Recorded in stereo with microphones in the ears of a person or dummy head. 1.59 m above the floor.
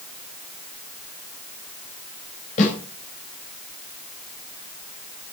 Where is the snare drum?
45° left (ahead or behind), 10 m.